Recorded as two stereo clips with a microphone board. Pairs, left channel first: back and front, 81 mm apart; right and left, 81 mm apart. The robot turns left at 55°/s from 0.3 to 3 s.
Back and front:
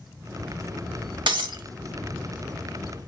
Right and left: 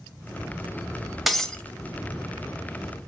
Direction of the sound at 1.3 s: Straight ahead.